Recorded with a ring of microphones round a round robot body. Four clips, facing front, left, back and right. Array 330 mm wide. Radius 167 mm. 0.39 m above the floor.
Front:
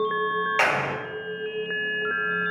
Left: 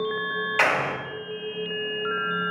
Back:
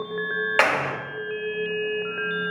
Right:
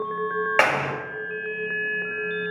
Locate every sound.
0.6 s a clap: 120° right, 1.2 m